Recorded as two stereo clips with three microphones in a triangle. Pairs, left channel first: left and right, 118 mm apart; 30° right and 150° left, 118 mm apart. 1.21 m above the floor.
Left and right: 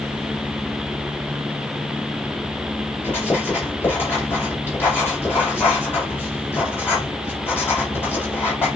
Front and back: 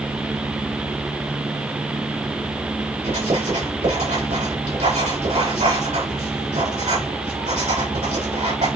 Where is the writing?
160° left, 4 m.